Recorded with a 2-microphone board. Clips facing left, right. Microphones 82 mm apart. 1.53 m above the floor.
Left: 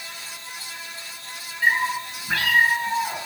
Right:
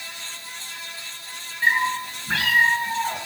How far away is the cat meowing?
About 7.5 m.